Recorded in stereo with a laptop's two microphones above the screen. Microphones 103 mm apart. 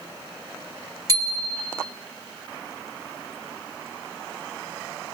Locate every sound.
1.1 s a bicycle bell: 35° right (ahead or behind), 2.5 m